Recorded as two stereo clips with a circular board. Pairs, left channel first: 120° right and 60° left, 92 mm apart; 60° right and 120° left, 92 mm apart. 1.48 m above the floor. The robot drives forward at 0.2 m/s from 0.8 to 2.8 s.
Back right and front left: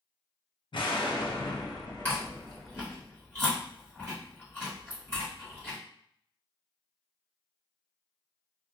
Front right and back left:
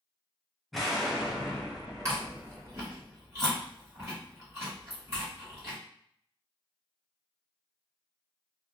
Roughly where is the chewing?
Behind.